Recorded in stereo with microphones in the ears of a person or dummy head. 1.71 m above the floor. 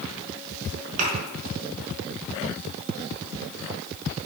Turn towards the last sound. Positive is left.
turn(degrees=-45)  # may be behind; listen again after turning